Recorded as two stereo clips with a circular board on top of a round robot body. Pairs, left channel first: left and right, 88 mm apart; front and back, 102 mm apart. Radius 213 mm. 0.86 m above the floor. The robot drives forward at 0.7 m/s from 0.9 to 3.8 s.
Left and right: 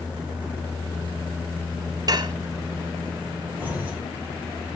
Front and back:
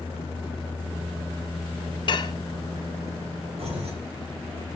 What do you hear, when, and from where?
2.1 s dishes clattering: 45° right, 1.0 m; by 2.4 s 50° right, 0.9 m
3.6 s keys jangling: 165° right, 4 m